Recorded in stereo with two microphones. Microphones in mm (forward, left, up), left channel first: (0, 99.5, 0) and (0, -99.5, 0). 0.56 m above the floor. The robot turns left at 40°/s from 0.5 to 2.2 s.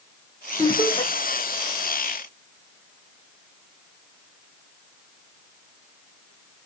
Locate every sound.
0.6 s laughter: 20° left (ahead or behind), 0.8 m